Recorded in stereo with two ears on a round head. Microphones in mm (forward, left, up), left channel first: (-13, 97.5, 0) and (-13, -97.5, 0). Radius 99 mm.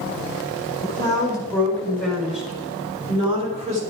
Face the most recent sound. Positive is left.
turn(degrees=-35)  # may be behind; listen again after turning